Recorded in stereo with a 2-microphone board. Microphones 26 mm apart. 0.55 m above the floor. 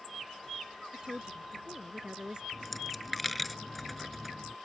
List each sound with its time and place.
0.9 s a woman speaking: 25° right (ahead or behind)
2.5 s a dropped coin: 5° left (ahead or behind)